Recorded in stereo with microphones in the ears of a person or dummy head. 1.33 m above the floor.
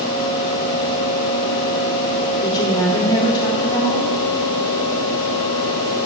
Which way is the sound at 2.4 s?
25° left (ahead or behind).